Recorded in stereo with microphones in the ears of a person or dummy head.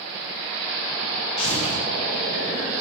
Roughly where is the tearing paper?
Left.